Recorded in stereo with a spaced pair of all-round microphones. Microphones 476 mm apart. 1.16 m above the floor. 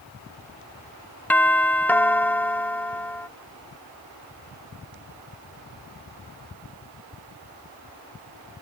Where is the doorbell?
5° left (ahead or behind).